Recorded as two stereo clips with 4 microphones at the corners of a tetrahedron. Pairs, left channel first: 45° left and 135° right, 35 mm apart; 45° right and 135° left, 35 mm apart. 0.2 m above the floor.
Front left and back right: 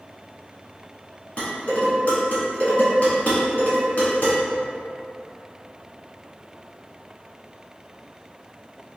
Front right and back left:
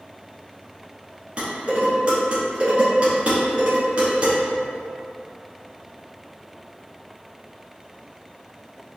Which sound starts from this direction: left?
Dishes clattering, at 1.4 s.